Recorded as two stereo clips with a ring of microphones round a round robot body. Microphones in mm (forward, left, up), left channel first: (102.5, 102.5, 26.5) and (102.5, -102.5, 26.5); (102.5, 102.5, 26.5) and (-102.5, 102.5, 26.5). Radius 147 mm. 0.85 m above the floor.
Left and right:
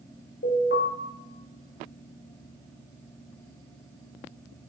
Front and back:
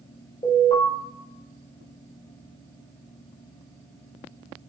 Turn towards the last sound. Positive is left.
turn(degrees=65)